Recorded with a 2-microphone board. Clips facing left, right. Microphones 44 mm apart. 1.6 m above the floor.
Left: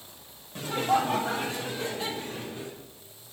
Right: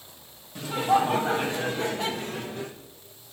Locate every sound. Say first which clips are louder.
0.6 s laughter: right 3 dB; 5° left (ahead or behind), 0.7 m; by 2.8 s 65° right (ahead or behind), 1.4 m